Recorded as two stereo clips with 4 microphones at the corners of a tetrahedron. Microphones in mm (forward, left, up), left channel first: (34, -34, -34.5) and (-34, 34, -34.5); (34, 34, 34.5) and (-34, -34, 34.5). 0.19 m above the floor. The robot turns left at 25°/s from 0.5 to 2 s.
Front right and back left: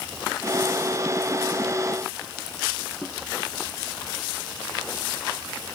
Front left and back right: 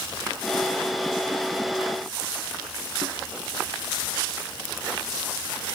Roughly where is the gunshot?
I don't hear a gunshot.